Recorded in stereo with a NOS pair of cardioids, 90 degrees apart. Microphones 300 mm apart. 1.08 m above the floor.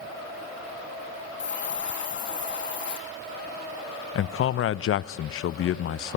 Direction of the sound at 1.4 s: 40° left.